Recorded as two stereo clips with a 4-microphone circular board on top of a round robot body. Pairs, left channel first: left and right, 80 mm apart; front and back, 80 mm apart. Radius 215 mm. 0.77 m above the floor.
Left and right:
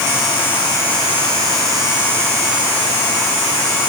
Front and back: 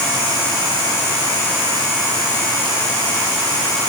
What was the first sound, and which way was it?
Only background noise.